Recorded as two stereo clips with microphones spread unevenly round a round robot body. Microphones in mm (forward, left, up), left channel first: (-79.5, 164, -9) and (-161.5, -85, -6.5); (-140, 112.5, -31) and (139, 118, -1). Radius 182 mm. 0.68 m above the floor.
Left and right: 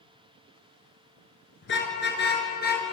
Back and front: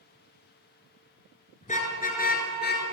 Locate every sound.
1.6 s a car horn: 115° left, 6 m; by 2.9 s 130° left, 6.5 m